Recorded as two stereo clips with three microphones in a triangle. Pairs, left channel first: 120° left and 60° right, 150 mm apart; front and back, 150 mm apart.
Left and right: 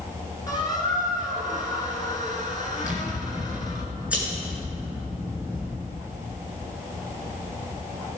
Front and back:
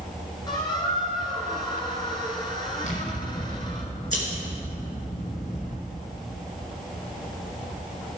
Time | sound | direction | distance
0.5 | a squeak | 60° left | 2 m
2.8 | scissors | 20° left | 2.5 m